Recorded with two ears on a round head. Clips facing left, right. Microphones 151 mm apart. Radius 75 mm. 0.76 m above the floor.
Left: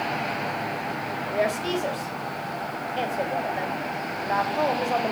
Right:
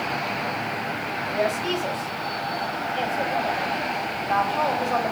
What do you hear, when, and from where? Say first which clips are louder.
1.3 s a woman speaking: even; 15° left (ahead or behind), 3.5 m